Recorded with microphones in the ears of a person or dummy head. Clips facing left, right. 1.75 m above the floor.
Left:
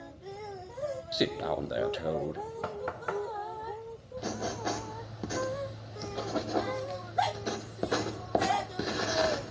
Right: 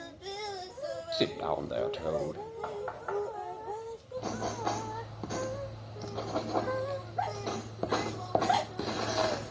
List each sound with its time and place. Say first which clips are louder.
1.1 s a man speaking: even; 10° left (ahead or behind), 0.6 m
2.6 s knocking: even; 35° left (ahead or behind), 1.3 m
4.2 s writing: even; 15° left (ahead or behind), 1.3 m